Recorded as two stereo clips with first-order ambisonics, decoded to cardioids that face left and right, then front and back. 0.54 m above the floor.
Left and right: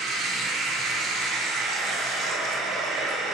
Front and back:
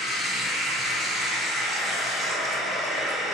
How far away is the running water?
About 1.3 m.